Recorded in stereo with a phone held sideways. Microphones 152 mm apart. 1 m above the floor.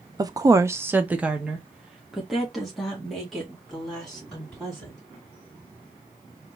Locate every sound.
0.2 s a woman speaking: 25° right (ahead or behind), 0.5 m; by 5.0 s 5° left (ahead or behind), 3.5 m